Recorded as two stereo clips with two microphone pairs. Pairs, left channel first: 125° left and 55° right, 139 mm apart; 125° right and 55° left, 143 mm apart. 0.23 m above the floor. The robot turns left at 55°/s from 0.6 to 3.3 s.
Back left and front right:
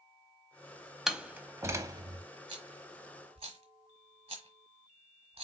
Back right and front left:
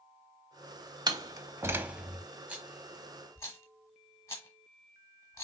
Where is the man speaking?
No man speaking in this recording.